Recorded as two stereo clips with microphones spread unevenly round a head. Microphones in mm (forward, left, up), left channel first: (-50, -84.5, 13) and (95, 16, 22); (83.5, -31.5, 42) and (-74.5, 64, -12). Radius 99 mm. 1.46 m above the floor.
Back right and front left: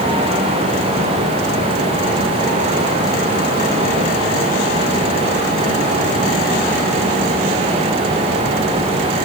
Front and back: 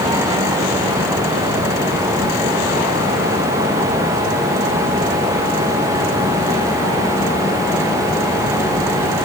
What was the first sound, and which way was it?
Only background noise.